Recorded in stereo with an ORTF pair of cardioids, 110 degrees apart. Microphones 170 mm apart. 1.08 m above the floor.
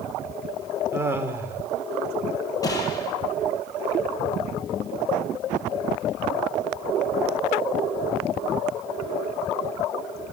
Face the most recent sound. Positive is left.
turn(degrees=20)